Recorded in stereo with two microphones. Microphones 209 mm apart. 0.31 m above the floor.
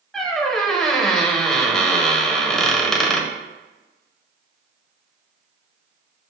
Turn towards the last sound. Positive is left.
turn(degrees=0)  # may be behind; listen again after turning